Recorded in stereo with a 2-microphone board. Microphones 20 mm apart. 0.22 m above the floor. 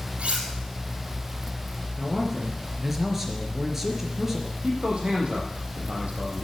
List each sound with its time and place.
0.2 s cutlery clinking: 80° right, 3.5 m
2.0 s a man speaking: 15° right (ahead or behind), 4 m
4.6 s a man speaking: 55° right (ahead or behind), 7 m